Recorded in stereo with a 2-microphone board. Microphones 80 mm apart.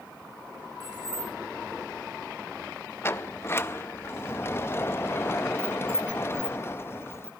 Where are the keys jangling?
50° right (ahead or behind), 3 m.